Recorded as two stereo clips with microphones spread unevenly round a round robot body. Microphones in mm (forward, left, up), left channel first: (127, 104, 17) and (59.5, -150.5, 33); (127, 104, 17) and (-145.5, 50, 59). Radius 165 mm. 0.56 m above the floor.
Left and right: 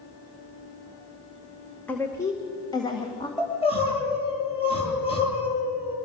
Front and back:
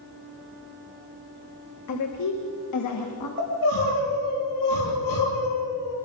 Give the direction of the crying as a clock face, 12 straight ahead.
12 o'clock.